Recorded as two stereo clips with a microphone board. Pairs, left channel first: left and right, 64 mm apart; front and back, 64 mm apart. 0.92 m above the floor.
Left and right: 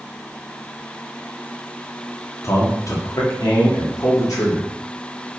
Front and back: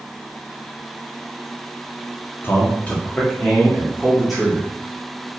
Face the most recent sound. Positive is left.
turn(degrees=95)